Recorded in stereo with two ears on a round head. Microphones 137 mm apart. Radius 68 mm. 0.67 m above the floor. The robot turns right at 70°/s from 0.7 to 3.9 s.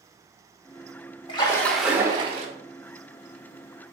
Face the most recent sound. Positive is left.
turn(degrees=-30)